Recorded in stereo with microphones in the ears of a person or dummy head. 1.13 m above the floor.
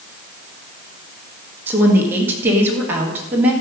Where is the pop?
I don't hear a pop.